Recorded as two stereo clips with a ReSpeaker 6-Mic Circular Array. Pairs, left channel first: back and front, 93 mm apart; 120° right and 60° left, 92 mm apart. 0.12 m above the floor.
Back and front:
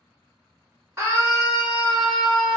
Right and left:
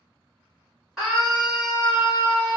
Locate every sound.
1.0 s a scream: 20° right, 1.7 m; by 2.6 s 70° left, 1.5 m